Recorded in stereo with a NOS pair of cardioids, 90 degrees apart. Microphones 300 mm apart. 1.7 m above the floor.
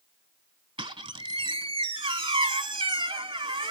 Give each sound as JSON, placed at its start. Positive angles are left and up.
{"t": 0.8, "sound": "a squeak", "azimuth_deg": -15, "distance_m": 2.5}